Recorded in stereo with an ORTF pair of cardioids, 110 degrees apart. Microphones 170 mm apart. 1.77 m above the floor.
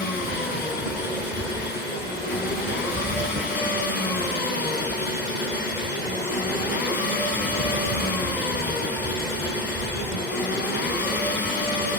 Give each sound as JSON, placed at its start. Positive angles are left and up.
{"t": 0.0, "sound": "an engine running", "azimuth_deg": 65, "distance_m": 9.0}